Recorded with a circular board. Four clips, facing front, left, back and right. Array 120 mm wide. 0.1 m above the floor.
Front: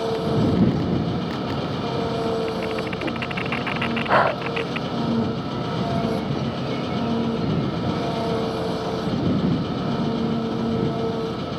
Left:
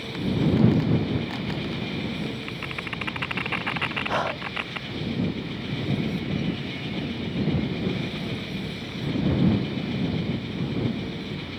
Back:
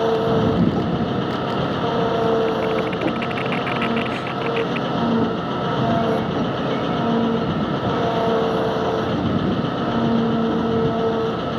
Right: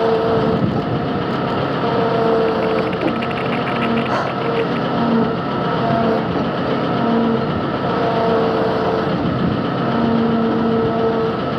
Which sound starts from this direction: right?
An engine running, at 0.0 s.